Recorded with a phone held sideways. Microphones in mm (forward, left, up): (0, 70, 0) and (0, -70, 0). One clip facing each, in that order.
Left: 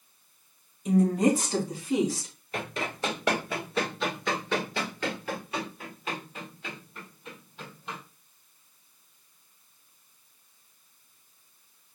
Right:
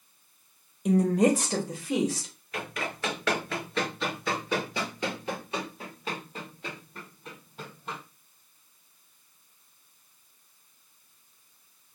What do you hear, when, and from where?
0.8 s a woman speaking: 65° right (ahead or behind), 1.2 m; by 2.3 s 85° right, 1.9 m
2.5 s running footsteps: 30° left (ahead or behind), 1.8 m; by 8.0 s 45° right (ahead or behind), 3.5 m